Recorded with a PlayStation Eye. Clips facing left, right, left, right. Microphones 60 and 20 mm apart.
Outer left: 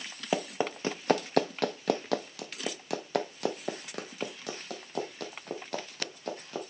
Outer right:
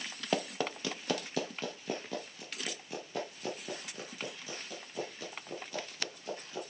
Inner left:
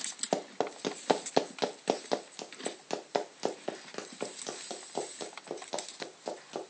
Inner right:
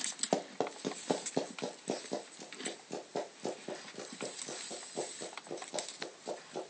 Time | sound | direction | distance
0.3 | running footsteps | 15° left (ahead or behind) | 0.7 m